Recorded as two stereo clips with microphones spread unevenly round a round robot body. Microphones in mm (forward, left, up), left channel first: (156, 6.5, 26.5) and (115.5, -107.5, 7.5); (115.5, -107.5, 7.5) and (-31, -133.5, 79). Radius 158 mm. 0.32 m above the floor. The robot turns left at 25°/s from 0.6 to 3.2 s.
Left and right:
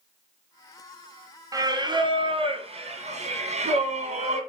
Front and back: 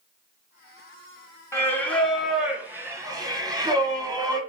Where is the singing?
50° right, 1.6 m; by 4.4 s 95° right, 1.6 m.